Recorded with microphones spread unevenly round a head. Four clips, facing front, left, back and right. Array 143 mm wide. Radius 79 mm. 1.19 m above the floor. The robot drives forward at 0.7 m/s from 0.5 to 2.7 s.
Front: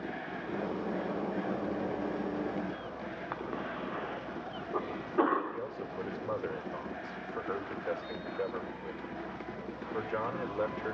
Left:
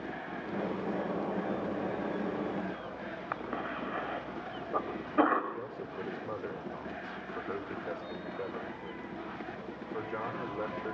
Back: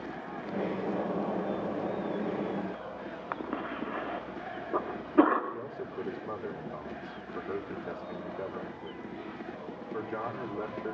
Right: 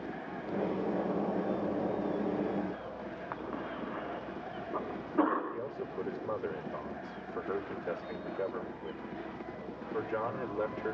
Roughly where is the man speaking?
Behind right.